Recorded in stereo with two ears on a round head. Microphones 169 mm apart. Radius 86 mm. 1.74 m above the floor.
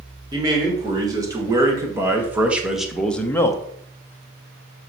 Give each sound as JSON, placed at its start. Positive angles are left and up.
{"t": 0.3, "sound": "a man speaking", "side_deg": -25, "distance_m": 3.5}